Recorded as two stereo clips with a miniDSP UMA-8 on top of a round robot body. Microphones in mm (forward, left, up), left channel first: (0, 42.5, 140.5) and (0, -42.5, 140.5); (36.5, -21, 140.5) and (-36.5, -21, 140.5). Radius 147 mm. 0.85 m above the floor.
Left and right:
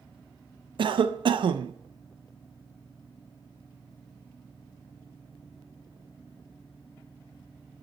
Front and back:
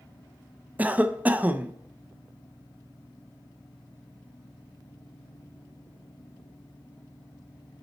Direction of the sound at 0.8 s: 110° right.